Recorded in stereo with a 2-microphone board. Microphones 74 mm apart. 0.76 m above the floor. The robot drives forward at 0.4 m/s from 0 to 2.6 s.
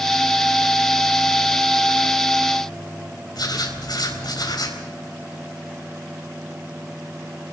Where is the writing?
70° left (ahead or behind), 4 m.